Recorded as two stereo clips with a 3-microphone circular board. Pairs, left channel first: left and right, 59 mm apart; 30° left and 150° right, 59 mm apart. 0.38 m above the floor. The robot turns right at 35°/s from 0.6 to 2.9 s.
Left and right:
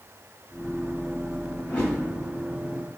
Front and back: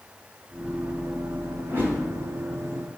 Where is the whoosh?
160° left, 1.6 m; by 2.0 s 170° left, 1.6 m.